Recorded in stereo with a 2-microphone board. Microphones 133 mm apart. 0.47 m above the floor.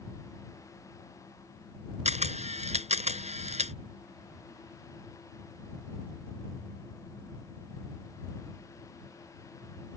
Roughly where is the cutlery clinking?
No cutlery clinking in this recording.